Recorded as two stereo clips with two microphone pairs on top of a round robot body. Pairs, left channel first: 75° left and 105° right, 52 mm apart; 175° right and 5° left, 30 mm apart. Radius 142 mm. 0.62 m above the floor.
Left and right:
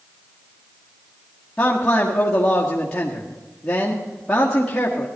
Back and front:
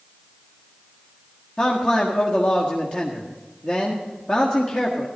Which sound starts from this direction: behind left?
A man speaking, at 1.6 s.